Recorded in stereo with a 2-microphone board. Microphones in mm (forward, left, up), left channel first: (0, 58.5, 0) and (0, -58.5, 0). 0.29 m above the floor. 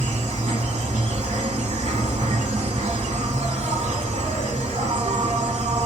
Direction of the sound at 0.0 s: 70° right (ahead or behind).